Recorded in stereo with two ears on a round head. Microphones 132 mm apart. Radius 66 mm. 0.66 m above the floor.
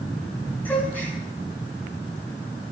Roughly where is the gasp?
Centre.